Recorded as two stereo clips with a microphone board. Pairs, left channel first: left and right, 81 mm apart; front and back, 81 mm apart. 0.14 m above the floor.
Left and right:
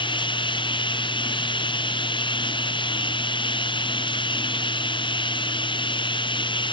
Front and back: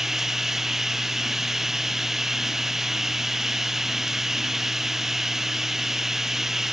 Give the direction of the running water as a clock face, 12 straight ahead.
9 o'clock.